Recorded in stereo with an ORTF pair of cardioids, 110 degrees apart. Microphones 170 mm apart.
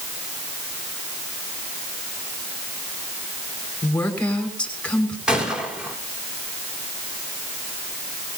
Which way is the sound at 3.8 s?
5° left.